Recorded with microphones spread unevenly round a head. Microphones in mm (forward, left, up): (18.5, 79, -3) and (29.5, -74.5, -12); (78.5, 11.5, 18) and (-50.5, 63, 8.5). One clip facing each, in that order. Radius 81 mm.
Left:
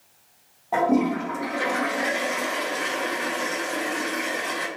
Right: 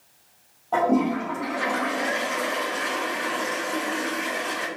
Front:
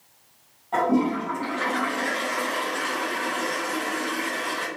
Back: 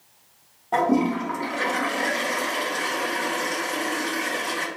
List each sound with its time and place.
0.7 s a toilet flushing: 165° left, 0.9 m